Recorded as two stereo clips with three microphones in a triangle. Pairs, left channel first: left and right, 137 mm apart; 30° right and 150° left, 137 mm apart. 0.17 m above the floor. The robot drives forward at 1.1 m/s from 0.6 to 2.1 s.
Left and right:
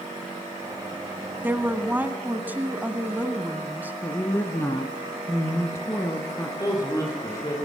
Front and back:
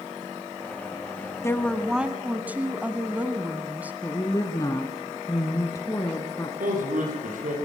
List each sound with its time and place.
1.4 s a woman speaking: 40° right, 1.2 m; by 3.9 s 150° right, 1.2 m
4.0 s a woman speaking: 25° left, 1.8 m
6.6 s a man speaking: 155° left, 7 m